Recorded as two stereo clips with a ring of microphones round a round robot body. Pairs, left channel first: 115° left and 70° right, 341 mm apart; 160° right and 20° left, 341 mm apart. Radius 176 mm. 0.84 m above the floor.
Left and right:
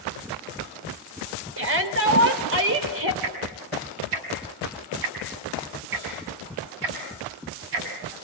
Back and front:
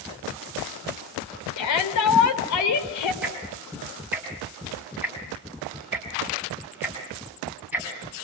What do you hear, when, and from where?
1.6 s a shout: 120° right, 3.5 m
3.2 s ticking: 60° right, 6 m